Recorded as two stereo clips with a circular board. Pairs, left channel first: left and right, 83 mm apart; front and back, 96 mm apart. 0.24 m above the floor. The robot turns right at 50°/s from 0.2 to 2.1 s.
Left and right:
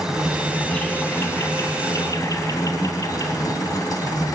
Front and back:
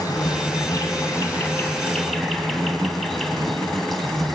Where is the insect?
10° right, 3 m; by 4.3 s 85° left, 3 m.